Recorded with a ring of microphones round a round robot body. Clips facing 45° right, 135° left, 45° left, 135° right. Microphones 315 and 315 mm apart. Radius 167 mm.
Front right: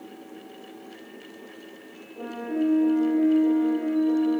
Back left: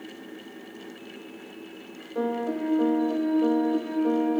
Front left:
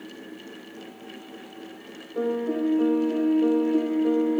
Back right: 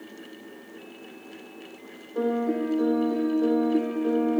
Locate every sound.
2.1 s a piano: 140° left, 8 m